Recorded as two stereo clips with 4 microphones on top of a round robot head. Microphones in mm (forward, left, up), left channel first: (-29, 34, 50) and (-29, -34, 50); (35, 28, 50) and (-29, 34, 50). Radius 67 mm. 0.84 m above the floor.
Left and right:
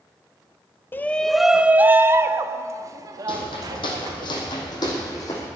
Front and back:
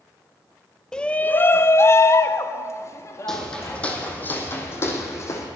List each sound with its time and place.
0.9 s a shout: 65° left, 0.5 m; by 4.3 s 55° right, 2 m
3.3 s footsteps: 75° left, 2.5 m; by 5.5 s 35° left, 3 m